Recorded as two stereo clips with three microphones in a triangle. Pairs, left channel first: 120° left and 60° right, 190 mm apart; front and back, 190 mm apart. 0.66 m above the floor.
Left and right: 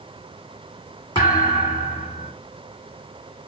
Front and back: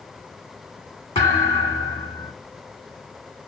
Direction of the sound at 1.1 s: 55° left.